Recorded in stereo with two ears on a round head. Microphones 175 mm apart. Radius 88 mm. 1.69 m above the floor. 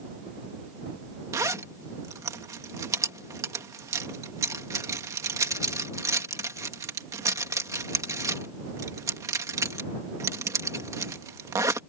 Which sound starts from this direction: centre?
A zipper, at 1.3 s.